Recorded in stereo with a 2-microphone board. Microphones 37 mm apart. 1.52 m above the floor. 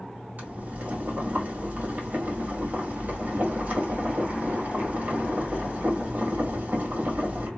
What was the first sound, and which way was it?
Boiling, 50° right (ahead or behind).